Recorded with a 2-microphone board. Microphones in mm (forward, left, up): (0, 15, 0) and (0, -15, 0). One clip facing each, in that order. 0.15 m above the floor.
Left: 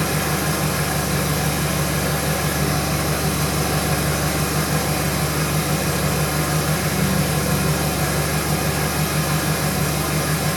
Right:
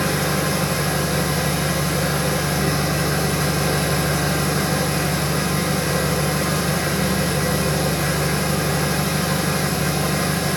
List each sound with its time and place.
0.0 s an engine running: 50° right (ahead or behind), 4 m